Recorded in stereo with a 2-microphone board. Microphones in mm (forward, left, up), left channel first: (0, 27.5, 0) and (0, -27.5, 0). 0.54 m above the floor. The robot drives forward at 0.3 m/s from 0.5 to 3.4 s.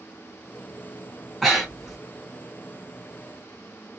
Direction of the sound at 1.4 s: Centre (ahead or behind).